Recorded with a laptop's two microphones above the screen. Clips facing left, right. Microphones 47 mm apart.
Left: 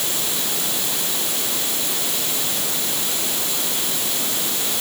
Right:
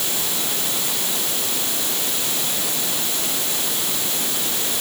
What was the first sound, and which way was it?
Only background noise.